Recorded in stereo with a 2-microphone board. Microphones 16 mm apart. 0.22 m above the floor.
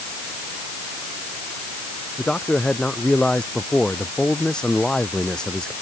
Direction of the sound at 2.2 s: 55° left (ahead or behind).